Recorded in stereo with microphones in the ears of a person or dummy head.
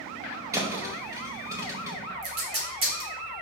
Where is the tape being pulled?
40° right (ahead or behind), 1.5 m.